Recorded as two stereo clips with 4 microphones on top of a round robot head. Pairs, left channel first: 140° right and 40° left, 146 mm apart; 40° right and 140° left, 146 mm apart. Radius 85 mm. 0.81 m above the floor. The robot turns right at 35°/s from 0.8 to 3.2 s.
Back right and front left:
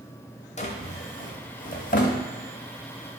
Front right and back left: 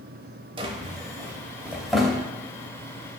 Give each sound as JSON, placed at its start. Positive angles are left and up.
{"t": 0.6, "sound": "a drawer", "azimuth_deg": -170, "distance_m": 0.7}